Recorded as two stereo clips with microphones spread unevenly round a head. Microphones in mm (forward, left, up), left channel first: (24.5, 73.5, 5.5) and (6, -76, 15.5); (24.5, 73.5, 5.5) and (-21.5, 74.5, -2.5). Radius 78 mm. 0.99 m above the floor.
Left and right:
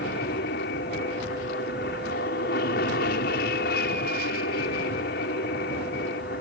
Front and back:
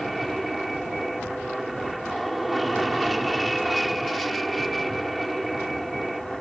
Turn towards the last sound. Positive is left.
turn(degrees=90)